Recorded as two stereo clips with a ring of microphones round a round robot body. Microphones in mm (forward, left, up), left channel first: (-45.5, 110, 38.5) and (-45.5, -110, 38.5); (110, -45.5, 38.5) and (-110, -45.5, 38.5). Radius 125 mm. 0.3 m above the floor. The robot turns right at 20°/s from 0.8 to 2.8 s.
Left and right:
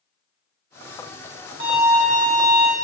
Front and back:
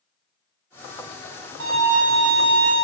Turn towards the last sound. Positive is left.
turn(degrees=-130)